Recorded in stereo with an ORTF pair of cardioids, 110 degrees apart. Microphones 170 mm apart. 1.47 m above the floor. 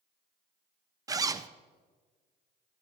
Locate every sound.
1.1 s a zipper: 20° right, 0.6 m